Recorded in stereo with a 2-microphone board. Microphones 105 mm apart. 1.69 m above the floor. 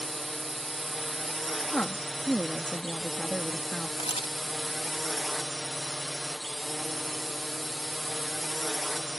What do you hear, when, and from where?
0.0 s a drone: centre (ahead or behind)
1.6 s a woman speaking: 10° left (ahead or behind)
4.0 s a camera shutter: 70° left (ahead or behind)